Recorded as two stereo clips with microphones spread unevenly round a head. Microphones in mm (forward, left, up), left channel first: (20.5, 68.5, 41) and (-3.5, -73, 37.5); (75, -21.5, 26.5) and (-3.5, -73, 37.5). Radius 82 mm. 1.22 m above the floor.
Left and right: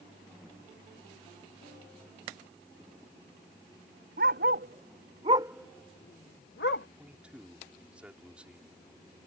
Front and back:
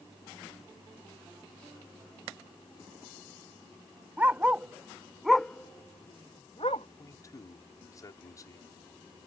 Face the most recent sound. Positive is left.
turn(degrees=-15)